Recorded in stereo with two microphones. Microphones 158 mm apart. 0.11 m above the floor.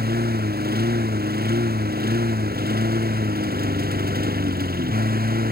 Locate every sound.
0.0 s a lawn mower: 85° right; by 5.5 s 75° right (ahead or behind)